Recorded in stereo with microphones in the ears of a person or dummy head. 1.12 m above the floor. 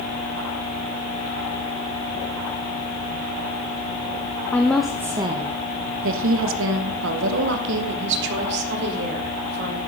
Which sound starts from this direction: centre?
A woman speaking, at 4.5 s.